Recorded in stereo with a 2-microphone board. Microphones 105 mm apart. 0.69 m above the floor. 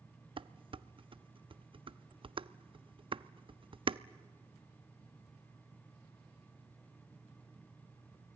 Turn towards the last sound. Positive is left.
turn(degrees=-55)  # may be behind; listen again after turning